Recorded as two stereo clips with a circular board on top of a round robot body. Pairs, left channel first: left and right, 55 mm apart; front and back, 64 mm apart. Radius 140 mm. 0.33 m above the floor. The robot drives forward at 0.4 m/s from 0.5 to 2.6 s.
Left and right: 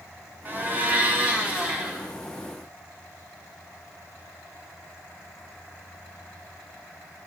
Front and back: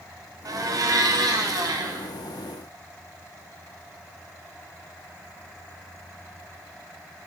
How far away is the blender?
About 0.9 m.